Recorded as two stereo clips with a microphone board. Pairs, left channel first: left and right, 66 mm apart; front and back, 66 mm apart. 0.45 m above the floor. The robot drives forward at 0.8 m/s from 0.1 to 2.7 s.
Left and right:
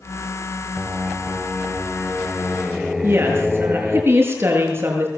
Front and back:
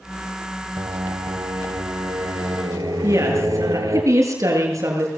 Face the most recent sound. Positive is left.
turn(degrees=-140)